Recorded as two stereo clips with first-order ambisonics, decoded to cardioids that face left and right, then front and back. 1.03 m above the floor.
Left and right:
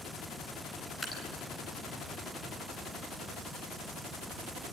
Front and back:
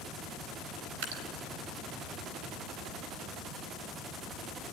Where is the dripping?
170° left, 4 m.